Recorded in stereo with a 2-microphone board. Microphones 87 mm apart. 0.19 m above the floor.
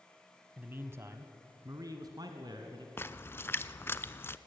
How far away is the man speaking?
About 1.0 m.